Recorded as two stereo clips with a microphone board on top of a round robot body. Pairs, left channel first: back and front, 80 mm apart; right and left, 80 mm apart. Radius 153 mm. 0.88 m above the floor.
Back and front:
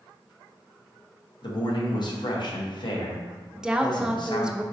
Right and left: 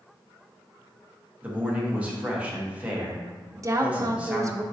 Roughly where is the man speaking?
Behind.